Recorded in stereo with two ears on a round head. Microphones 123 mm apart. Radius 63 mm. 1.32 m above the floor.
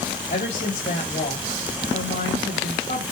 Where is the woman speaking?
50° left (ahead or behind), 3.5 m.